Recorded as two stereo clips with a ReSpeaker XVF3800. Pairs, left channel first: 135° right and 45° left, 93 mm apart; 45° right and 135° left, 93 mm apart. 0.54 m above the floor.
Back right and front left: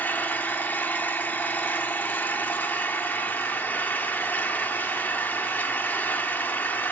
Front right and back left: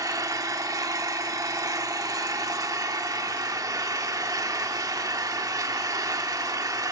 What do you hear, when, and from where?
0.0 s an engine running: 165° left, 0.9 m